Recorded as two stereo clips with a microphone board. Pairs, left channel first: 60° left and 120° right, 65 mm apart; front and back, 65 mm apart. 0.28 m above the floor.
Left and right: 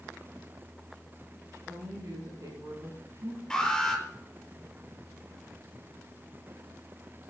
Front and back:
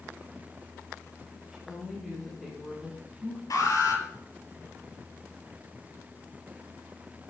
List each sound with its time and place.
1.5 s a woman speaking: 95° right, 7.5 m; by 3.4 s 90° right, 9 m
3.5 s an alarm: 25° right, 8 m